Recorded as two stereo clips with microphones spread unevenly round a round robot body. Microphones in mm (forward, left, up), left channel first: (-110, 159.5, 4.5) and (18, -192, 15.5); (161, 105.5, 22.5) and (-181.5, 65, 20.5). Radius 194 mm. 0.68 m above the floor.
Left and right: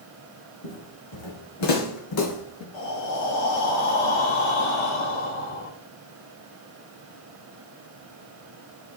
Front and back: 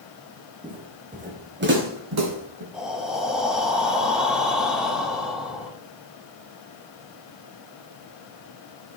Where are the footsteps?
110° left, 3 m; by 2.6 s 160° left, 2.0 m.